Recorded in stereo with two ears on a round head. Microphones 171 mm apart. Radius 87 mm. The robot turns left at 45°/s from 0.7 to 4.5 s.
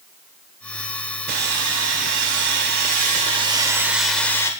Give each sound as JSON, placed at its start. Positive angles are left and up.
{"t": 1.3, "sound": "sawing", "azimuth_deg": -55, "distance_m": 2.0}